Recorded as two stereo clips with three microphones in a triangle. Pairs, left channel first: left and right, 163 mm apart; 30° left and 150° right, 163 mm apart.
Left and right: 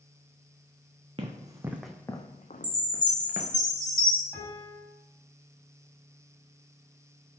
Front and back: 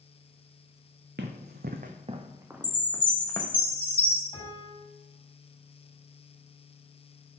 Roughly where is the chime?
Left.